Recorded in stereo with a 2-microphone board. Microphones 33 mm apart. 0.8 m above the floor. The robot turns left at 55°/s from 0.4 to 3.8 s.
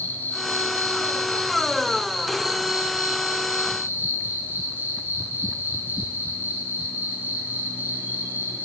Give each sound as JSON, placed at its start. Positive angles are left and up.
{"t": 0.0, "sound": "an insect", "azimuth_deg": 100, "distance_m": 8.0}